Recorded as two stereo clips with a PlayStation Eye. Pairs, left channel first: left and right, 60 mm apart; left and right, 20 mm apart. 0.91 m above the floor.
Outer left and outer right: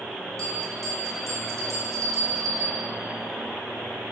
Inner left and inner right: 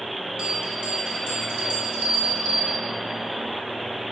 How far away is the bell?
About 2.0 m.